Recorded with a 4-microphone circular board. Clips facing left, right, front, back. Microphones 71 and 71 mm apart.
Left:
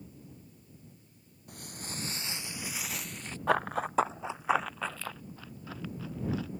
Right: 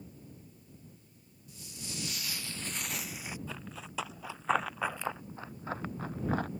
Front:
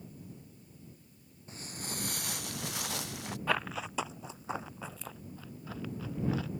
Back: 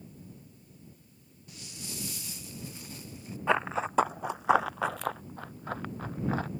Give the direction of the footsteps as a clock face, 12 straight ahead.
10 o'clock.